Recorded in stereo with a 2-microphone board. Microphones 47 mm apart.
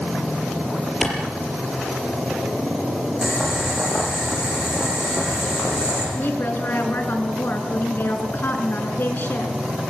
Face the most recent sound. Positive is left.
turn(degrees=50)  # may be behind; listen again after turning